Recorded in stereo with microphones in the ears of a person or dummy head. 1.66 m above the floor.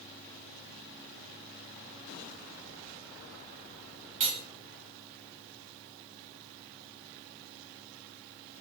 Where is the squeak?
No squeak in this recording.